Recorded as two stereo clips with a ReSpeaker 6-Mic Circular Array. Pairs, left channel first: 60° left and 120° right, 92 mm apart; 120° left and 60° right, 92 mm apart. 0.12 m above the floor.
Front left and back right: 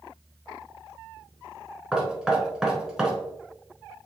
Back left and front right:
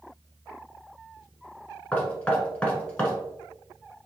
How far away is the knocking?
About 0.8 m.